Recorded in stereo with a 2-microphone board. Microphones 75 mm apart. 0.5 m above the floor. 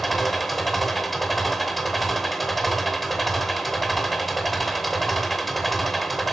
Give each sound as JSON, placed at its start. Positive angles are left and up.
{"t": 0.0, "sound": "an engine running", "side_deg": 0, "distance_m": 0.8}